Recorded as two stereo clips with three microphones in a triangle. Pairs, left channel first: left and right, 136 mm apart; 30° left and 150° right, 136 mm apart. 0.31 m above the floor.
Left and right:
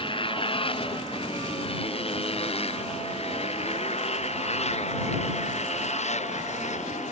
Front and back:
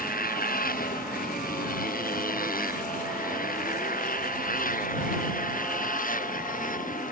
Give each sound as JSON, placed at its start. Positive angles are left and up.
{"t": 0.0, "sound": "a motorcycle", "azimuth_deg": 35}